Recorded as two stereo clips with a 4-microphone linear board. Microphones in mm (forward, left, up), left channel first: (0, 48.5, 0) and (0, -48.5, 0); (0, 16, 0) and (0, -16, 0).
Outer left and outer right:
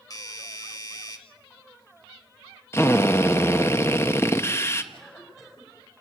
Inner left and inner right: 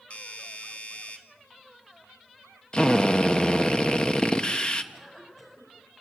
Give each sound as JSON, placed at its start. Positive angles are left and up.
{"t": 0.1, "sound": "a doorbell", "side_deg": 40, "distance_m": 1.9}
{"t": 2.7, "sound": "a drill", "side_deg": 25, "distance_m": 1.2}
{"t": 4.9, "sound": "a cough", "side_deg": 5, "distance_m": 5.5}